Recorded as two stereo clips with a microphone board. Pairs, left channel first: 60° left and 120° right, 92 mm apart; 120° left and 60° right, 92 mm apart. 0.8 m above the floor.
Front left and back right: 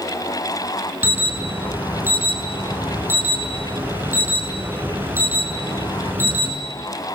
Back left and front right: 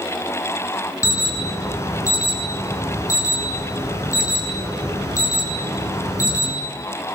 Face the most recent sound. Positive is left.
turn(degrees=175)